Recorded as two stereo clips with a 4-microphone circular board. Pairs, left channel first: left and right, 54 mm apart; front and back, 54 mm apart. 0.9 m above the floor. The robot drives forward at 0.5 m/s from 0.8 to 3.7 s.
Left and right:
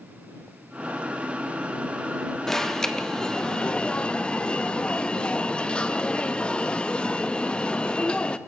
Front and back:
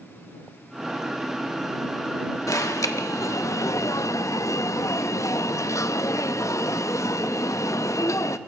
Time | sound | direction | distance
2.5 | an alarm | 10° left | 1.1 m